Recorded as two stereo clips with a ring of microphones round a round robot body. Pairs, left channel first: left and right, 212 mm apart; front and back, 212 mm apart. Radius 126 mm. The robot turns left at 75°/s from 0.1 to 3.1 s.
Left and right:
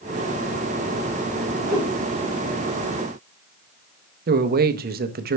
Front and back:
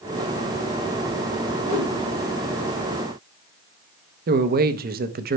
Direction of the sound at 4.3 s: 135° right.